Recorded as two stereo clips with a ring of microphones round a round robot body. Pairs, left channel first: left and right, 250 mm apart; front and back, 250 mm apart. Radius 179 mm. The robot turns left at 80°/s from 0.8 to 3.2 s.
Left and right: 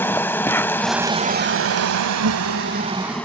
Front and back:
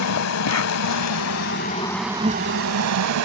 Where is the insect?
10° left; by 3.3 s 175° left.